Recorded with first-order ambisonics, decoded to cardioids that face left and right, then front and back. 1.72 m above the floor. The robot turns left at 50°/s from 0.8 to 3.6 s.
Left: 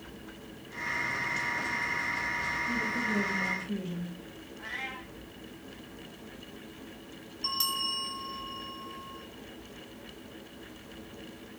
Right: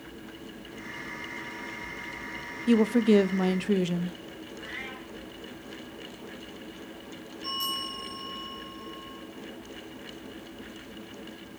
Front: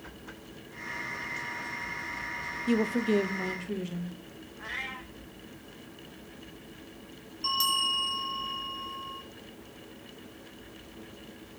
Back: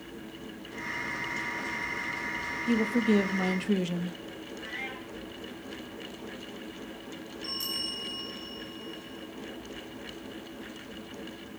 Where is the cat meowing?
10° right, 4 m.